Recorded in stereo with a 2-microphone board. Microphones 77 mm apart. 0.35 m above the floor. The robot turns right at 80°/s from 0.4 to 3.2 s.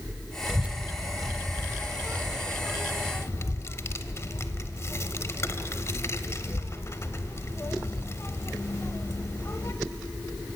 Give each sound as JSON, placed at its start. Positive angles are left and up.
{"t": 0.5, "sound": "a child speaking", "side_deg": -10, "distance_m": 0.9}